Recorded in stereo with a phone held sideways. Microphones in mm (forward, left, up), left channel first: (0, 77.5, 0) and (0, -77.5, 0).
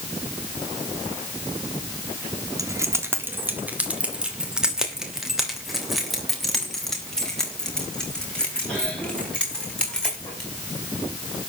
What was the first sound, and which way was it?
Keys jangling, 20° right (ahead or behind).